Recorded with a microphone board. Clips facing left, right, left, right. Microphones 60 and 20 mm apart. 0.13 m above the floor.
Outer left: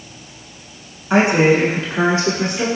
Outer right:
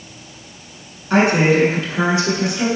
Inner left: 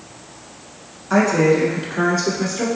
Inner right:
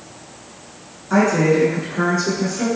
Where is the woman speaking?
20° left (ahead or behind), 1.2 m; by 2.7 s 45° left (ahead or behind), 1.6 m.